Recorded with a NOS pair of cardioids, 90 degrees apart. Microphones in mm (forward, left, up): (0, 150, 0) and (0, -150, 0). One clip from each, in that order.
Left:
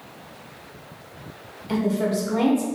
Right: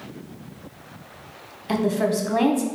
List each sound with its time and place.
1.7 s a woman speaking: 30° right, 0.8 m